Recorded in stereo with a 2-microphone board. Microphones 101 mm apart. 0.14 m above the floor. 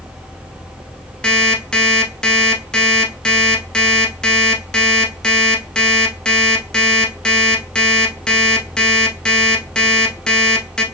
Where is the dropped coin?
No dropped coin in this recording.